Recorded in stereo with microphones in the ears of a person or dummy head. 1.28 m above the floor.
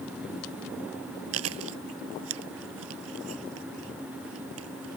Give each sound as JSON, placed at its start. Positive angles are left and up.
{"t": 1.3, "sound": "chewing", "side_deg": -90}